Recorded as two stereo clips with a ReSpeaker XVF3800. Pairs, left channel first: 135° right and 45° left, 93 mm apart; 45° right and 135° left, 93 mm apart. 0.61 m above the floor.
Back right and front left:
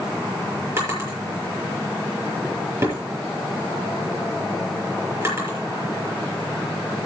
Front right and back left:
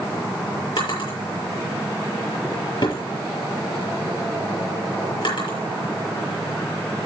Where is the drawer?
15° right, 7 m.